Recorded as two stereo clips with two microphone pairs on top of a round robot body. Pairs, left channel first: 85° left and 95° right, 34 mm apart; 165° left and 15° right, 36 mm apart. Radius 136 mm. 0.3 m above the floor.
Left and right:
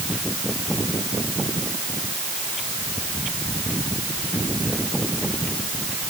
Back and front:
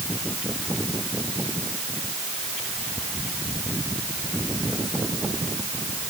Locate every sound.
Only background noise.